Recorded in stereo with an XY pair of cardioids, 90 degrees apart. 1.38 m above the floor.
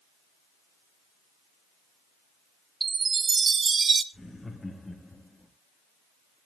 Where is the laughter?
15° left, 2.0 m.